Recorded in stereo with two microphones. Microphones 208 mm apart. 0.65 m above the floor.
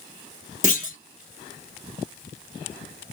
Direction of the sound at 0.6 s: 40° left (ahead or behind).